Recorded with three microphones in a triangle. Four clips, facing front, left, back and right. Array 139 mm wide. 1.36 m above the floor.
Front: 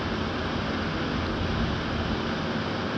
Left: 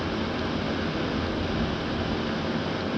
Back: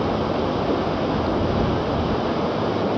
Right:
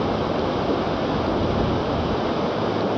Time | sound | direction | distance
0.0 | running water | 140° right | ?